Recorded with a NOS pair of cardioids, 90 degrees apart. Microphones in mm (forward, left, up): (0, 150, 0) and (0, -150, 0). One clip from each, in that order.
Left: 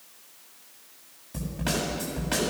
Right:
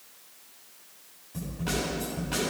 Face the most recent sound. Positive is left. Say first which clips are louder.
# left 2 dB
turn(degrees=60)